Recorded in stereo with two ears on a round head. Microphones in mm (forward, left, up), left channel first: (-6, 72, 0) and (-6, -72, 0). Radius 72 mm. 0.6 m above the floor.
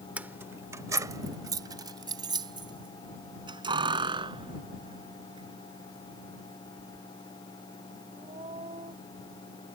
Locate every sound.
0.2 s keys jangling: 10° right (ahead or behind); by 8.9 s 35° right (ahead or behind)